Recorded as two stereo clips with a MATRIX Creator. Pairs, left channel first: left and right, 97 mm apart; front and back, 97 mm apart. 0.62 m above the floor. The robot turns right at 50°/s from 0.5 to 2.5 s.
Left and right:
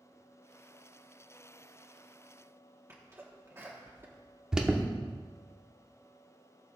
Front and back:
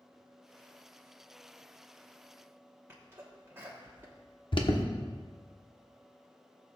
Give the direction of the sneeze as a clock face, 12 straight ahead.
4 o'clock.